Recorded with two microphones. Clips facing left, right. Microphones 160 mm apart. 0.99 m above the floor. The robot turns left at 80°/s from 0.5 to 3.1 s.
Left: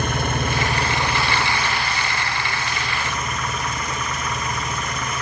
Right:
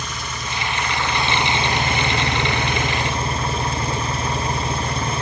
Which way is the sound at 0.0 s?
60° left.